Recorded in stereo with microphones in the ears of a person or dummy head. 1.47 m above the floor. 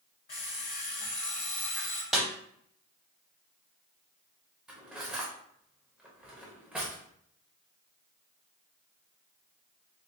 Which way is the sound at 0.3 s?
30° left (ahead or behind).